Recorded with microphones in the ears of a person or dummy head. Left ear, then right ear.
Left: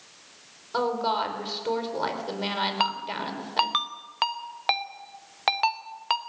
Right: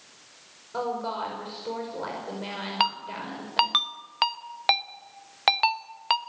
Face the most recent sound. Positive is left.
turn(degrees=-10)  # may be behind; listen again after turning